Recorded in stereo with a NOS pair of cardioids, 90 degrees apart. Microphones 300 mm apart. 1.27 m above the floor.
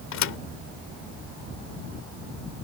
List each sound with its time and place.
0.1 s a thud: 70° left